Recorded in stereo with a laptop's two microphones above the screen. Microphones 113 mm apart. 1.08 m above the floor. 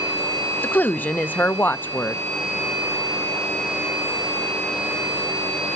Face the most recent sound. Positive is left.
turn(degrees=15)  # may be behind; listen again after turning